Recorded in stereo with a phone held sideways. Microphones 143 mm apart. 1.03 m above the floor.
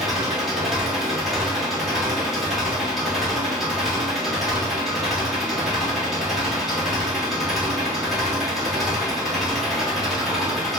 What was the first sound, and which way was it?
An engine running, centre (ahead or behind).